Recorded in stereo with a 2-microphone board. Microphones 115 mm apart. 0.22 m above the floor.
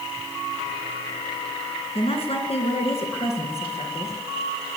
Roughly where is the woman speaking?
Left.